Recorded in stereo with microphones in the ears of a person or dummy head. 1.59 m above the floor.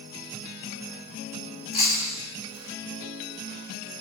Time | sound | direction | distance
1.7 | chewing | 40° left (ahead or behind) | 1.2 m